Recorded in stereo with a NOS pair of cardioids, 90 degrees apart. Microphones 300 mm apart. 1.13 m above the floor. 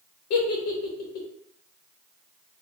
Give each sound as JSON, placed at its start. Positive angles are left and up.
{"t": 0.3, "sound": "a giggle", "azimuth_deg": 65, "distance_m": 0.9}